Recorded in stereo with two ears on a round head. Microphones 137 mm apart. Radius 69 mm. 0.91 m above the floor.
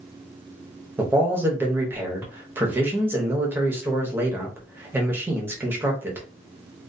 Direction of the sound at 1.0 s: 15° right (ahead or behind).